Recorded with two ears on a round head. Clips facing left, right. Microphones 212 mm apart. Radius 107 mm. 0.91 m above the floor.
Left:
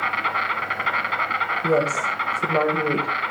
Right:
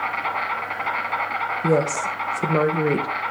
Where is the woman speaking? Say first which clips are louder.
Right 1 dB; 25° right (ahead or behind), 0.9 m.